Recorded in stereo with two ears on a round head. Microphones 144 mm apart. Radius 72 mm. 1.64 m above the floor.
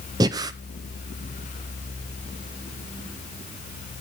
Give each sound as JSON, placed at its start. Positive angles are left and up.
{"t": 0.2, "sound": "breathing", "side_deg": -25, "distance_m": 0.6}